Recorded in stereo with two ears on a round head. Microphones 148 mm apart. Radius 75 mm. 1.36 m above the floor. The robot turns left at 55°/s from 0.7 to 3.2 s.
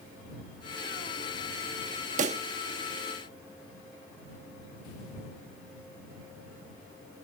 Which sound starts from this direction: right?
A pop, at 2.2 s.